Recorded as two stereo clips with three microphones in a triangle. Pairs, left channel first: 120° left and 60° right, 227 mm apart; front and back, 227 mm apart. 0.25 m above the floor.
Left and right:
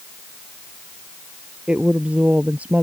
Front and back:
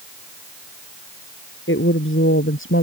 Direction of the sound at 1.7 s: 25° left.